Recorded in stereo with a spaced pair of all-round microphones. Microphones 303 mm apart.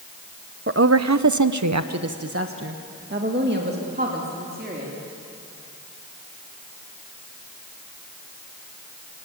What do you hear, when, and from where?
0.7 s a woman speaking: 40° right (ahead or behind), 0.8 m; by 4.9 s 30° right (ahead or behind), 3.5 m